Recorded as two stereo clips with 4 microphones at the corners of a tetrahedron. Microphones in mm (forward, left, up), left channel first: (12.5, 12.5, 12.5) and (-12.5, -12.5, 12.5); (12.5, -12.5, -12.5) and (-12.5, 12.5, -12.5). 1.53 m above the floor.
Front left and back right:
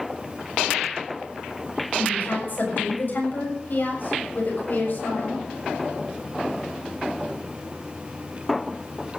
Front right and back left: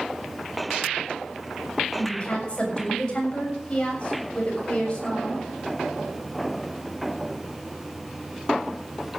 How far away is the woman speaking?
About 7 m.